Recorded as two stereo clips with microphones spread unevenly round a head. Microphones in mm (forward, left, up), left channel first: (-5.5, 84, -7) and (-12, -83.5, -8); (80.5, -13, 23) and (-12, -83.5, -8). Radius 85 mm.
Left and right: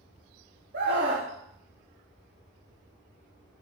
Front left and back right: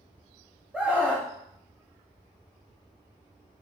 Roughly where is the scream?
Ahead right.